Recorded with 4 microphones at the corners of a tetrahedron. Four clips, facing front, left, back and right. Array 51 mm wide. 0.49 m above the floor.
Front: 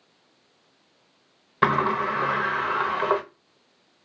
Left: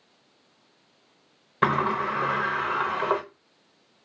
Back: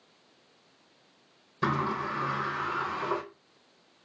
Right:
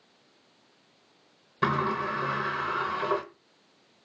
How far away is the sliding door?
About 0.6 m.